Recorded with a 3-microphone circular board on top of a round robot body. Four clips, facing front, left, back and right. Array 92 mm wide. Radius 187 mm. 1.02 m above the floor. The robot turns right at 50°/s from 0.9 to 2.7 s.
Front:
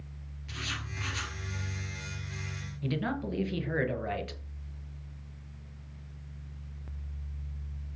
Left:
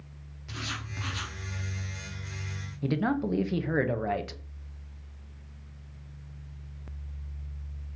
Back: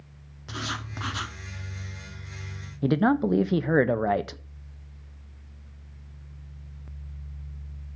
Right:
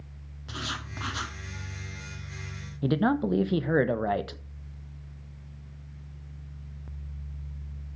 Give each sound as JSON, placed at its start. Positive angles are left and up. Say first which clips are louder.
{"t": 0.5, "sound": "writing", "louder": "right 2 dB, back 6 dB", "azimuth_deg": -155, "distance_m": 1.1}
{"t": 2.8, "sound": "a man speaking", "louder": "right 3 dB, back 11 dB", "azimuth_deg": -160, "distance_m": 1.1}